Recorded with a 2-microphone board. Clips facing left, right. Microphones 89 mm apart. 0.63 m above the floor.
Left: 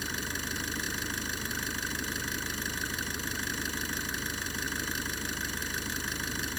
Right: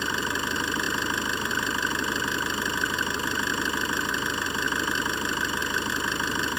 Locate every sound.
0.0 s an engine running: 70° right (ahead or behind)